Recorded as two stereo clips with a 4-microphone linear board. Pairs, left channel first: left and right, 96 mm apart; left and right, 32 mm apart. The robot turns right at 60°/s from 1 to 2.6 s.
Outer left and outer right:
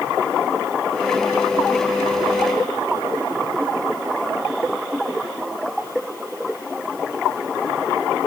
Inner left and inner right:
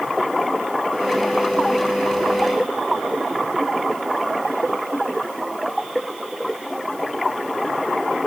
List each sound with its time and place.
Only background noise.